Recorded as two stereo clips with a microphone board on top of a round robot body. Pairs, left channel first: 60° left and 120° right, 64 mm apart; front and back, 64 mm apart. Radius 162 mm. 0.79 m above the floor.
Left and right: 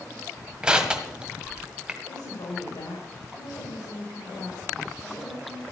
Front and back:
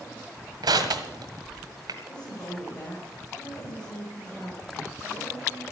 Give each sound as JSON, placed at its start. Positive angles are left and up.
{"t": 0.6, "sound": "crushing", "azimuth_deg": 165, "distance_m": 1.6}
{"t": 2.1, "sound": "a woman speaking", "azimuth_deg": 75, "distance_m": 5.0}